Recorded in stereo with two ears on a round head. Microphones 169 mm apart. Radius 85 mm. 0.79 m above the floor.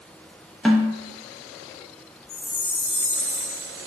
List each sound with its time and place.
0.7 s a snare drum: 5° left (ahead or behind), 0.7 m
2.3 s a chime: 15° left (ahead or behind), 1.4 m